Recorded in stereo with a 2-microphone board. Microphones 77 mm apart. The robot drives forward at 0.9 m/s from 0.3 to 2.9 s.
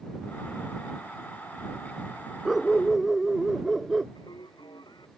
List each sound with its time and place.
2.5 s a dog barking: centre (ahead or behind)
4.2 s singing: 75° left (ahead or behind)